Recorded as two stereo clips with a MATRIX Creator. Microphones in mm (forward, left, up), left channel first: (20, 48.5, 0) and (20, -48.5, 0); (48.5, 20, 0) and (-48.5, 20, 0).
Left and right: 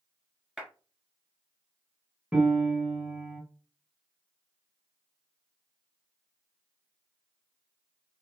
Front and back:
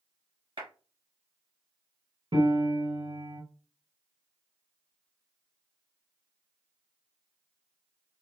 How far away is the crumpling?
I don't hear crumpling.